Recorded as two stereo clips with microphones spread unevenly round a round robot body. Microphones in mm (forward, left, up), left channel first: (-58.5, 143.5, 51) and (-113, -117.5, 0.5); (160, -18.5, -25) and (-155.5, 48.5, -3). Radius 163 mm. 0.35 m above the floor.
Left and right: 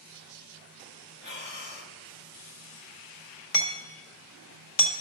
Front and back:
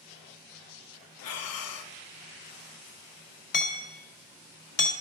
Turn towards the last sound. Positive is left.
turn(degrees=25)